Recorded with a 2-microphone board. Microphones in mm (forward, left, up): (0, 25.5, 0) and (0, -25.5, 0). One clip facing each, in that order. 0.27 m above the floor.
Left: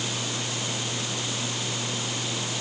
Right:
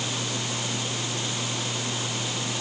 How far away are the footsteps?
No footsteps in this recording.